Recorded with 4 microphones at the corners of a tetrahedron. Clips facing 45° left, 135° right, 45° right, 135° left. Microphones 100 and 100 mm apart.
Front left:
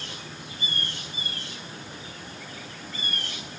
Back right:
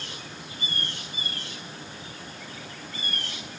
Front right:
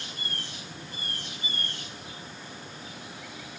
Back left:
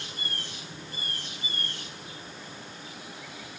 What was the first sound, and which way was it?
Only background noise.